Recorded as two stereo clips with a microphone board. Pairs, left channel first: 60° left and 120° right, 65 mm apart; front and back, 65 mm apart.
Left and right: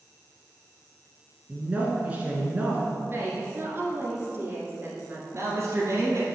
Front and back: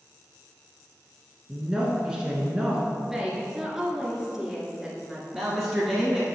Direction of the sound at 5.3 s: 110° right.